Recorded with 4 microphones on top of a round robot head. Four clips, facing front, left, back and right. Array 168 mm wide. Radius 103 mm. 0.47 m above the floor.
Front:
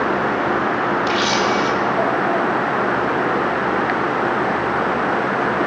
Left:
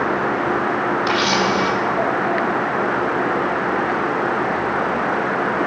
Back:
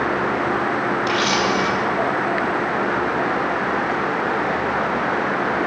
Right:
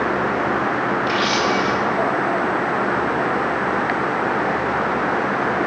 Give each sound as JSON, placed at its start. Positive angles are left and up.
{"t": 1.1, "sound": "a camera shutter", "azimuth_deg": 80, "distance_m": 2.0}